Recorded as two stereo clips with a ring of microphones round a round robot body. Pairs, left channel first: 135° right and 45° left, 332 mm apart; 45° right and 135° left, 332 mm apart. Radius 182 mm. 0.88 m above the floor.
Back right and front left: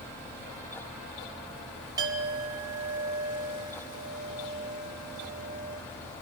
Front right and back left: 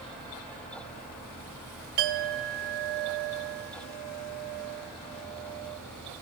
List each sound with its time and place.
2.0 s a clink: 125° left, 1.9 m